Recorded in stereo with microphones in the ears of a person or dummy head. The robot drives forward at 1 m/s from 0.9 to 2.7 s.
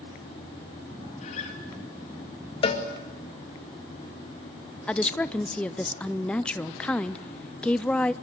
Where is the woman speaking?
Centre (ahead or behind), 0.5 m.